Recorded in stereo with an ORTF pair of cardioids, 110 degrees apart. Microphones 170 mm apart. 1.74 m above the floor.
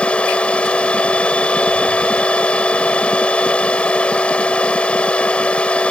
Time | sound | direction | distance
0.0 | a machine running | 5° left | ?